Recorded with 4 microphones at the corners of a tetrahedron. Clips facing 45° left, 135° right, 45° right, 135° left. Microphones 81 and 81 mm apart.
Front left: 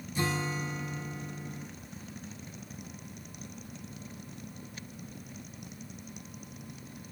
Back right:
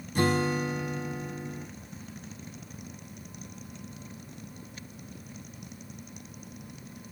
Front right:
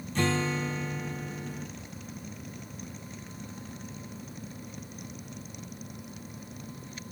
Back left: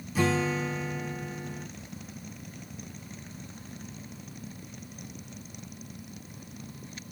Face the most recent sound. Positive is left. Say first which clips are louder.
# back right 7 dB, back left 2 dB
turn(degrees=-145)